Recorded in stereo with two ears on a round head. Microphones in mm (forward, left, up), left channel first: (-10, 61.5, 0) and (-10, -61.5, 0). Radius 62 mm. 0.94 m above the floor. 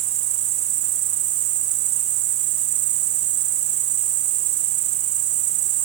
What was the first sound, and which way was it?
An insect, 55° right (ahead or behind).